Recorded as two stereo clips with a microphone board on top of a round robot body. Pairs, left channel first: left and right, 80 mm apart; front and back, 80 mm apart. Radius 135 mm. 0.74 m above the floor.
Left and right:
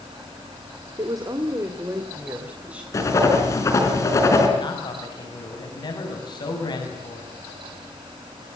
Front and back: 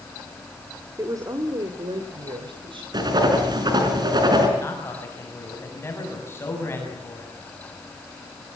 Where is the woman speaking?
125° right, 2 m; by 2.8 s 165° right, 3.5 m.